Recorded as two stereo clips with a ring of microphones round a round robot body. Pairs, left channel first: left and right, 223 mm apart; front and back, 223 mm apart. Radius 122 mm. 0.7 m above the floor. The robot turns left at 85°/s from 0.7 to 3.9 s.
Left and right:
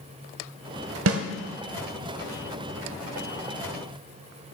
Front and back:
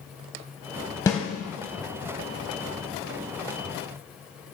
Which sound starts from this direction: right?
A snare drum, at 1.1 s.